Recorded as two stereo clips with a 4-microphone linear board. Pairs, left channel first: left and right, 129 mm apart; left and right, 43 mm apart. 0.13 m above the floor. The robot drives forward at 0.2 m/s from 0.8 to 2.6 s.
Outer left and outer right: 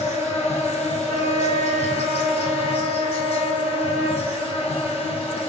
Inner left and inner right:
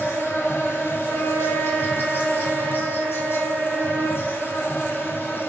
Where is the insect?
60° left (ahead or behind), 0.8 m; by 5.5 s 50° left (ahead or behind), 0.9 m.